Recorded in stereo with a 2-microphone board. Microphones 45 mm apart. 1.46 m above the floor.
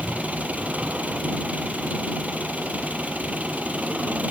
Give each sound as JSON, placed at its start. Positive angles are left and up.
{"t": 0.0, "sound": "an engine running", "side_deg": -35}